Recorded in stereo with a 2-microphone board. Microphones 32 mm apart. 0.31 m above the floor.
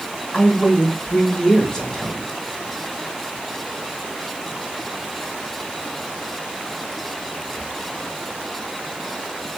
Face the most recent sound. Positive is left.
turn(degrees=20)  # may be behind; listen again after turning